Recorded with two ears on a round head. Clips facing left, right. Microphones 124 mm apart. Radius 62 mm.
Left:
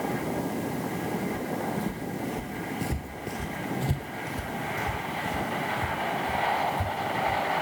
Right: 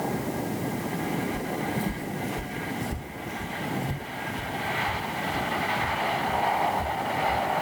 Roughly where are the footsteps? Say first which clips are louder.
Right 1 dB; right.